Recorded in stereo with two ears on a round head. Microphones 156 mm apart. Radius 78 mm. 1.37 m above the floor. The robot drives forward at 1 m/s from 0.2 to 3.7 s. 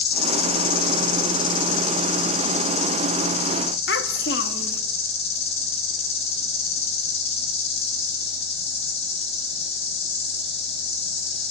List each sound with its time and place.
0.0 s an insect: 60° left (ahead or behind), 4.5 m; by 11.5 s 35° left (ahead or behind), 7 m
3.9 s a child speaking: 65° left (ahead or behind), 1.8 m